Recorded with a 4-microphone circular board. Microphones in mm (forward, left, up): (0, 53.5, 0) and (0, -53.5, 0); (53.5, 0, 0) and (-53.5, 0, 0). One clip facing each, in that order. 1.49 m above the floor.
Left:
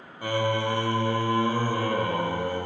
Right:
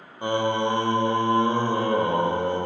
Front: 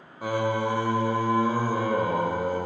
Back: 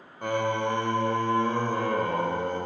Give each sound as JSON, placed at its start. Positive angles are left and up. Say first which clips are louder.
{"t": 0.2, "sound": "singing", "louder": "right 3 dB, front 1 dB", "azimuth_deg": -80, "distance_m": 0.5}